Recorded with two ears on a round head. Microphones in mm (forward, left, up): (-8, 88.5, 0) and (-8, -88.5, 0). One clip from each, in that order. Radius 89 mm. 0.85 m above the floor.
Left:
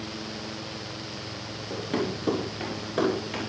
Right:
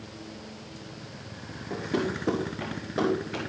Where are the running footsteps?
40° left (ahead or behind), 4.5 m; by 3.4 s 25° left (ahead or behind), 5.5 m.